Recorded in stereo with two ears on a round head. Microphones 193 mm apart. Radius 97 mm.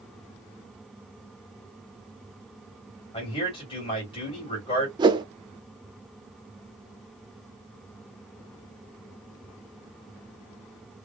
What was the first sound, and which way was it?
A man speaking, 25° left (ahead or behind).